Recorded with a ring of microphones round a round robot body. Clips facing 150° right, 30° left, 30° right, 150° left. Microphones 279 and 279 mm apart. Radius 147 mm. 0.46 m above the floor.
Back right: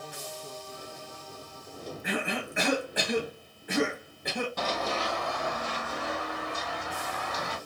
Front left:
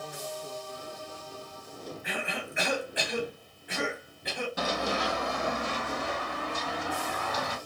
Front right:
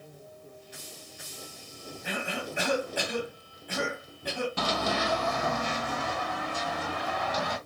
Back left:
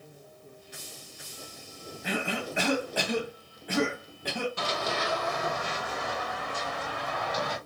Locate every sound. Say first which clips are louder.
2.0 s a cough: back right 6 dB, back left 3 dB; 170° left, 3 m
4.6 s running footsteps: front left 1 dB, front right 3 dB; 55° right, 0.9 m; by 7.6 s 25° right, 2.5 m